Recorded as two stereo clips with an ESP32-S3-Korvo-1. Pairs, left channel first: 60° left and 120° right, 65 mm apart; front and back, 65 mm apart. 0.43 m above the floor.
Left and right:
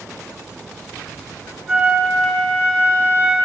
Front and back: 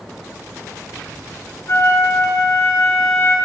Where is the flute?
45° right, 2.5 m.